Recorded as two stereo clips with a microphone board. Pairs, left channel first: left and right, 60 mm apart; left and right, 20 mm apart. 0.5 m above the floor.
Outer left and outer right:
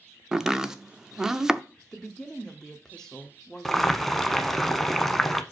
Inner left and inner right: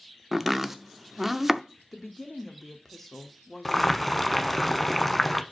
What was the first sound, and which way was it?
Chopping, 10° right (ahead or behind).